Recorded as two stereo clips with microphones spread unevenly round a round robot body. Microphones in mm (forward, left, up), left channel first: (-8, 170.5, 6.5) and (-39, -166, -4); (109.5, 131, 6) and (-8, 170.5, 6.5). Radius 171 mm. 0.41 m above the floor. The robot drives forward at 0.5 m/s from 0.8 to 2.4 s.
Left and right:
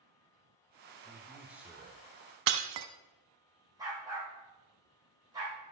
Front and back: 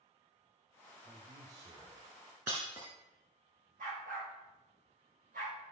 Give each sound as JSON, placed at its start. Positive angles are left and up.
{"t": 1.1, "sound": "a man speaking", "azimuth_deg": -170, "distance_m": 0.9}
{"t": 2.5, "sound": "breaking glass", "azimuth_deg": -115, "distance_m": 1.0}
{"t": 3.8, "sound": "a dog barking", "azimuth_deg": -175, "distance_m": 4.5}